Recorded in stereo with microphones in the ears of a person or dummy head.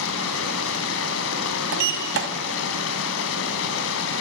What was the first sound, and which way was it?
Running water, 70° left (ahead or behind).